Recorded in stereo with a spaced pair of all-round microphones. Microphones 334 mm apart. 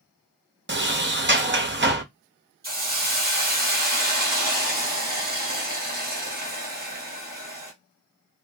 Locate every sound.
0.7 s a sliding door: 30° right (ahead or behind), 0.6 m
2.6 s a hiss: 25° right (ahead or behind), 1.2 m